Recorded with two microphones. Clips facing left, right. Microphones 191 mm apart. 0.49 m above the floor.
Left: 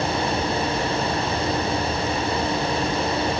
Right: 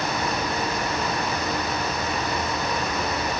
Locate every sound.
Only background noise.